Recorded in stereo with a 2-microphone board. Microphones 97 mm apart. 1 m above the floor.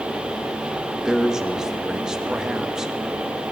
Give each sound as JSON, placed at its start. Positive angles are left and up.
{"t": 1.1, "sound": "a man speaking", "side_deg": -5, "distance_m": 1.3}